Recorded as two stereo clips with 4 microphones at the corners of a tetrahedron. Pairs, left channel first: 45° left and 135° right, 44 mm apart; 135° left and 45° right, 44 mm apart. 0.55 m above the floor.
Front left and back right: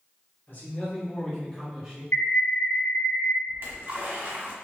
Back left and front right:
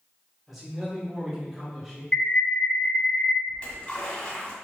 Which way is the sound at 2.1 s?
65° left.